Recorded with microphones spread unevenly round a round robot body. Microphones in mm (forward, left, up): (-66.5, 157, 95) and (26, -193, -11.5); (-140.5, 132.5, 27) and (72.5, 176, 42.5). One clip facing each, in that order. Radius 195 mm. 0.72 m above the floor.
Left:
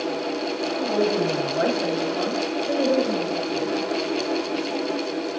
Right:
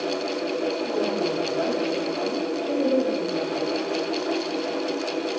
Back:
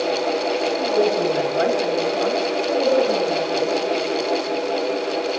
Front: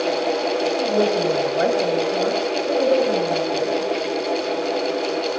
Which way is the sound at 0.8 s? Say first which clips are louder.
Left 3 dB, back 1 dB; 75° left.